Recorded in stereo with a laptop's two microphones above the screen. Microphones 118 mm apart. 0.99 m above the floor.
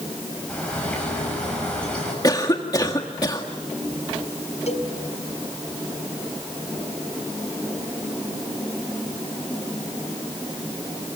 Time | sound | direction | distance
0.5 | a bird | 10° left (ahead or behind) | 7.5 m
2.2 | a cough | 30° left (ahead or behind) | 1.9 m
4.7 | a cowbell | 65° left (ahead or behind) | 5 m